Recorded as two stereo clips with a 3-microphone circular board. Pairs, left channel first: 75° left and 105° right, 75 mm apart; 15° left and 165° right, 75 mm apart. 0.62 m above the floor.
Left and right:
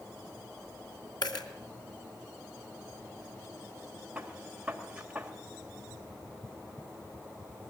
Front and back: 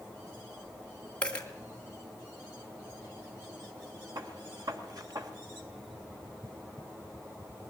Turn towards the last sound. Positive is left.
turn(degrees=180)